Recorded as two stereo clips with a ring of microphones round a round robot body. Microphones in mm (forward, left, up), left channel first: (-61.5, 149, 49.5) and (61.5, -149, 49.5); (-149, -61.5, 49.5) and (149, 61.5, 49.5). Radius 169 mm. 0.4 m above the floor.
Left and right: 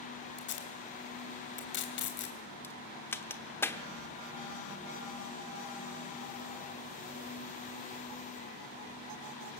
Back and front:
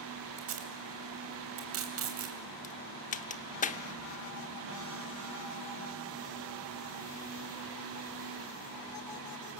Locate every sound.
0.4 s tape being pulled: 60° left, 3 m
2.6 s a crack: 175° right, 1.1 m